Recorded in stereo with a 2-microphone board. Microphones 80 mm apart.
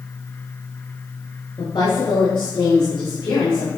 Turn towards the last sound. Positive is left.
turn(degrees=80)